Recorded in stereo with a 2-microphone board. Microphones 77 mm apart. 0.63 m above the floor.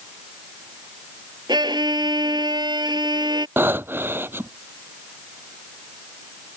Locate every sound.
1.5 s a violin: 70° right (ahead or behind)
3.6 s breathing: 30° right (ahead or behind)